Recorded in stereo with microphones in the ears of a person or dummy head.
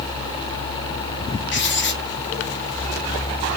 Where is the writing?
60° left (ahead or behind), 0.7 m.